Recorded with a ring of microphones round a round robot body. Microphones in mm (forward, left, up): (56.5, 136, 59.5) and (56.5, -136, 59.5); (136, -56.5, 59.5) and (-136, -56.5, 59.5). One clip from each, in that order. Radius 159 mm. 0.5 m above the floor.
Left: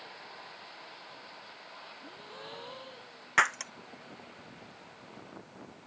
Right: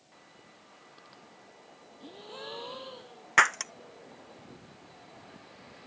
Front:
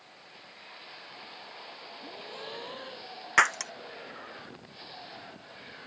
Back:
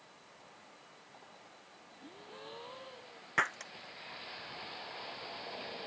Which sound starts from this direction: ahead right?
A gasp, at 2.0 s.